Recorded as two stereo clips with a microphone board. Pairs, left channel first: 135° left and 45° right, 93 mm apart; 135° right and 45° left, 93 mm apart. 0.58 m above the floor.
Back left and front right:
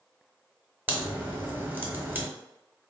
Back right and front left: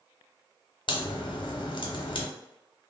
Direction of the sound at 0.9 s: 115° right.